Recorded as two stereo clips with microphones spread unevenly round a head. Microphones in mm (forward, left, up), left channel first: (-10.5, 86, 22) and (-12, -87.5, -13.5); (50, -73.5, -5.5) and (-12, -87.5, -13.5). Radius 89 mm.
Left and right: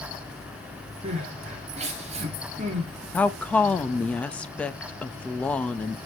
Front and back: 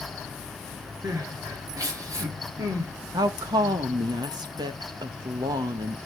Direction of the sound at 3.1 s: 175° left.